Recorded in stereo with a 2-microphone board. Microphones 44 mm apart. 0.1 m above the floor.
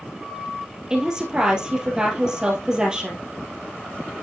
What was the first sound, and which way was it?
A woman speaking, 15° right (ahead or behind).